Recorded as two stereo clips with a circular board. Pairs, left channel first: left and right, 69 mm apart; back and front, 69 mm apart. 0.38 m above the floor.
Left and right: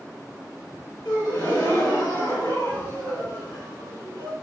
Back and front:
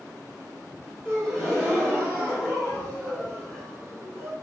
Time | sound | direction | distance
1.1 | a gasp | 105° left | 2.0 m